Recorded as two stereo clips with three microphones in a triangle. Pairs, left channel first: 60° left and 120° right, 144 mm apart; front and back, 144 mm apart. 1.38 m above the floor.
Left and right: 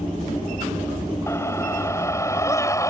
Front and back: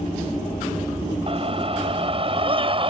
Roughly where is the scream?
Behind left.